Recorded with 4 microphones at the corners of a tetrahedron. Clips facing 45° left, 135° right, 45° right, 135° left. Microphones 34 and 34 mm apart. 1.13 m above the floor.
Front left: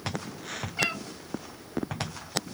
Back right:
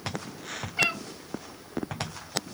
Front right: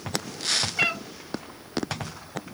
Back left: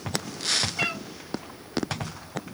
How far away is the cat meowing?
About 0.5 m.